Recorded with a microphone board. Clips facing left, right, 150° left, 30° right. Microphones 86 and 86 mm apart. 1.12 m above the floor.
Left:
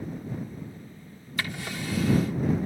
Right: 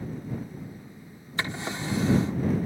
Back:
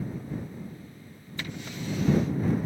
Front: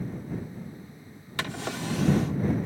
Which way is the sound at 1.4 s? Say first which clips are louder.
Right 2 dB, front 5 dB; 30° right.